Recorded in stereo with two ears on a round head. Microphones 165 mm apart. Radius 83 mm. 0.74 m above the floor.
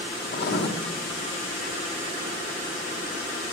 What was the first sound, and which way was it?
Writing, 60° left (ahead or behind).